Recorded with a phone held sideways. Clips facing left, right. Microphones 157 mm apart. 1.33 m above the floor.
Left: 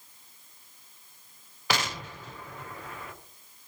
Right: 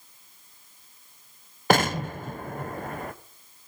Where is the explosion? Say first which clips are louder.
Right 9 dB; 50° right (ahead or behind), 0.8 m.